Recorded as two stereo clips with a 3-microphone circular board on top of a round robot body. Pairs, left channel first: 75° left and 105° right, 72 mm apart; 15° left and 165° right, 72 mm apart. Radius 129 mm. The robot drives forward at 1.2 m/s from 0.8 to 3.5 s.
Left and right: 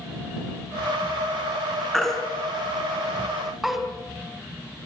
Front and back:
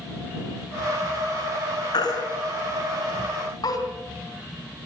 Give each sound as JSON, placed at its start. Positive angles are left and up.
{"t": 1.9, "sound": "a baby crying", "azimuth_deg": -10, "distance_m": 5.5}